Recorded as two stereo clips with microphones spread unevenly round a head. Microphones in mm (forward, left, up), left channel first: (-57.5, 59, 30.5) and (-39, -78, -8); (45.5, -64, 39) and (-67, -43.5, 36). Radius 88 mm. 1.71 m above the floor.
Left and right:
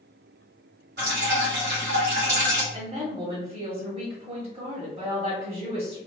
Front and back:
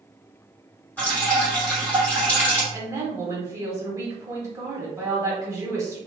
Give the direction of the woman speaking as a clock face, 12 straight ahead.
4 o'clock.